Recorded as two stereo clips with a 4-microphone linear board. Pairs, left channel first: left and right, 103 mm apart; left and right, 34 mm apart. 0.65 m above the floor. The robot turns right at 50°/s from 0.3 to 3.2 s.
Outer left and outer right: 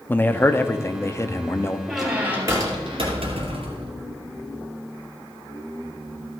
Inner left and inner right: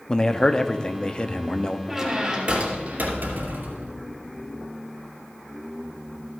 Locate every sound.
0.1 s a man speaking: 20° left (ahead or behind), 0.6 m; by 1.8 s 25° left (ahead or behind), 0.6 m
1.9 s a squeak: straight behind, 2.5 m; by 3.9 s 115° right, 2.5 m